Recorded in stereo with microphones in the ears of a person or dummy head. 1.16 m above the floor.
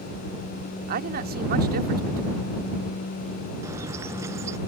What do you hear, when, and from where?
0.9 s a man speaking: 45° right (ahead or behind)
3.6 s a bird: 20° right (ahead or behind)